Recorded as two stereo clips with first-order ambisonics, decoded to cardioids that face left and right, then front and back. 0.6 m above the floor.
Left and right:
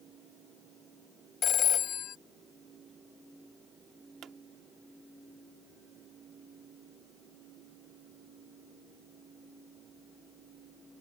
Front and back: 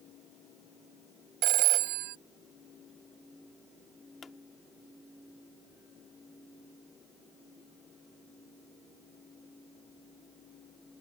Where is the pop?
60° right.